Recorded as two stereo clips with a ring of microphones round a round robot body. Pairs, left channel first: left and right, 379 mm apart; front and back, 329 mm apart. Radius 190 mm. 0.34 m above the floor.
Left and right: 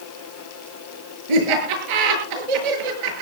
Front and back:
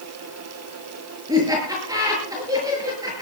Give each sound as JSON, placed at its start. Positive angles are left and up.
{"t": 1.3, "sound": "laughter", "azimuth_deg": -100, "distance_m": 7.5}